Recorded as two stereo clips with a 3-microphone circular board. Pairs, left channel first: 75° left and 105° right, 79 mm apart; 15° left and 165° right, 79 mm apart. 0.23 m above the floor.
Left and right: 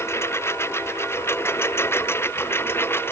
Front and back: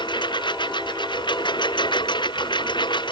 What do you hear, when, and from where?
0.0 s a lawn mower: 20° left; by 3.1 s 15° left